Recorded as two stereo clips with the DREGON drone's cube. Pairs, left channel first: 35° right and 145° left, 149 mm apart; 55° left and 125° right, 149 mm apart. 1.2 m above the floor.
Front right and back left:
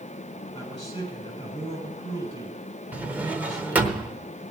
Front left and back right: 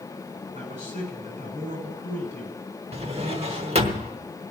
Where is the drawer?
140° right, 1.0 m.